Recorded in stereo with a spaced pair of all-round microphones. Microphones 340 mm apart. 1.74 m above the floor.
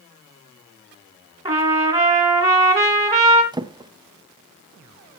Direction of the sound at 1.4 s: 10° right (ahead or behind).